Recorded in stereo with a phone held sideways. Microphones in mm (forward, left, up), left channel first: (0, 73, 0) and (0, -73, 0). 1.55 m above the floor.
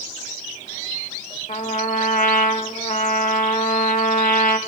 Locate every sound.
1.5 s a trumpet: 65° left (ahead or behind), 1.0 m